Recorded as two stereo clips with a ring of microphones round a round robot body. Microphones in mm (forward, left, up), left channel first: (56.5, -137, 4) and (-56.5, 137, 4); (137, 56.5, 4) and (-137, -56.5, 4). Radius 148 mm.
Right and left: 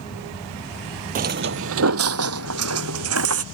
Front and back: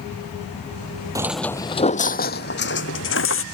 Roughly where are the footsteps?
Behind left.